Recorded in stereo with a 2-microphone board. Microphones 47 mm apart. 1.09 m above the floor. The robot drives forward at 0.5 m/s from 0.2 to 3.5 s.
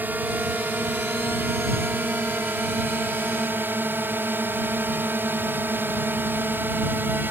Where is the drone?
40° right (ahead or behind); by 7.3 s 45° right (ahead or behind).